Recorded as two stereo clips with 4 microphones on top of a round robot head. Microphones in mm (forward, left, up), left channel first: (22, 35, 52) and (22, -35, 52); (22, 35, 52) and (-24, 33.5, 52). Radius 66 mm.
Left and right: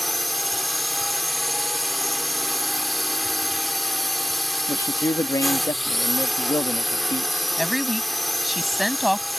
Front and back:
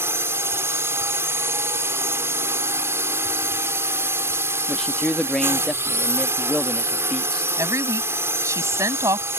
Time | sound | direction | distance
0.0 | a drone | straight behind | ?
4.7 | a man speaking | 80° left | ?
7.6 | a woman speaking | straight behind | ?